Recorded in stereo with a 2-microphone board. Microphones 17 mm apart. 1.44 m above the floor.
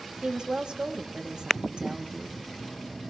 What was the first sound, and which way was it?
A woman speaking, 60° right (ahead or behind).